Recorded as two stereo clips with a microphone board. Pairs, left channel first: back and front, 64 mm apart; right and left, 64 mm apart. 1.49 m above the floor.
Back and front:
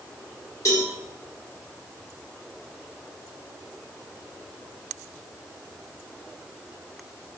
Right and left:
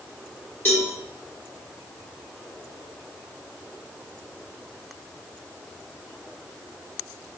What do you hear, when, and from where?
0.7 s a cowbell: 145° right, 1.3 m